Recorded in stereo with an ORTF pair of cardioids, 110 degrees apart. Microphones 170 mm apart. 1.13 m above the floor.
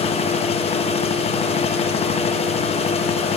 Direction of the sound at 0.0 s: 40° left.